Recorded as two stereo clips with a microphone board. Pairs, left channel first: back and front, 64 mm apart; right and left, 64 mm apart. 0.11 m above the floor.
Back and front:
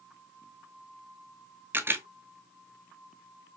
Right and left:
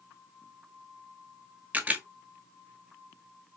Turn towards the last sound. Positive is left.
turn(degrees=35)